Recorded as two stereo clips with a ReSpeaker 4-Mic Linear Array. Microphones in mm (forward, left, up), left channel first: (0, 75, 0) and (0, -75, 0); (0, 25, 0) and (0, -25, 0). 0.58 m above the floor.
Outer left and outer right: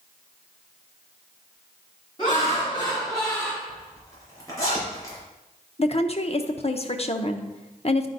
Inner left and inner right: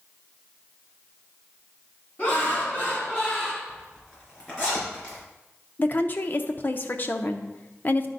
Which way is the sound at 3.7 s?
20° left (ahead or behind).